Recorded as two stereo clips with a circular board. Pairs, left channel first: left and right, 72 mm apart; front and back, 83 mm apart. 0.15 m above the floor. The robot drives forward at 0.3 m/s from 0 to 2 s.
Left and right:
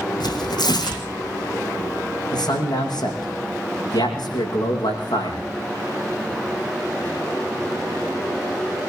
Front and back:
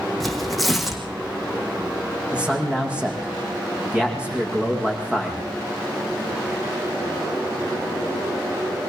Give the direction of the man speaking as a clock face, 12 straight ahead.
9 o'clock.